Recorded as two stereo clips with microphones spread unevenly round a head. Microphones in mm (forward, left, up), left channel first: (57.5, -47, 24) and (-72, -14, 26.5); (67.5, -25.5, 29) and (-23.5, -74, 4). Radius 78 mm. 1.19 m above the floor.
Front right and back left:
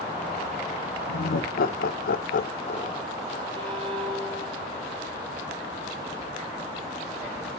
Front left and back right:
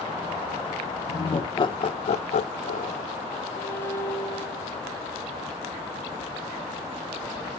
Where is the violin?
110° left, 0.9 m.